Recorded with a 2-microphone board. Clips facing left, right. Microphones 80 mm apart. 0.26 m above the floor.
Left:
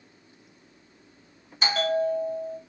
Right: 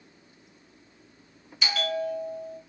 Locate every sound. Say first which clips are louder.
1.6 s a bell: left 5 dB; 35° left (ahead or behind), 0.7 m